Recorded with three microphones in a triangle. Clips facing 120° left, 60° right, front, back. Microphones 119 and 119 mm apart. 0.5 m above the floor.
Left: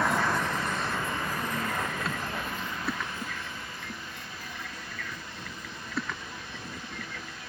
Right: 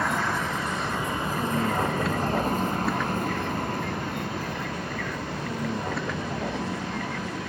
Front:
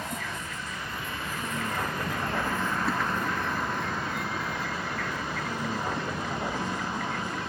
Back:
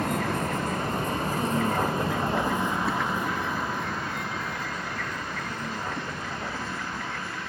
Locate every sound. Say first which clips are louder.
0.0 s a vehicle: even, back 9 dB; 150° right; by 7.5 s 70° right